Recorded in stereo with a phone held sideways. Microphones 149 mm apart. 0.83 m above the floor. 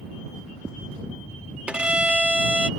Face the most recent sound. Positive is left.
turn(degrees=-5)  # may be behind; listen again after turning